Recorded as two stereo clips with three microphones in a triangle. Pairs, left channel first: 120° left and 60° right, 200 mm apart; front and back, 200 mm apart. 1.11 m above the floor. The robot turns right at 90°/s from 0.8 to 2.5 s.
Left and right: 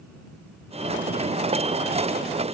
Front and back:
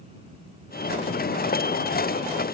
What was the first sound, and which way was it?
Only background noise.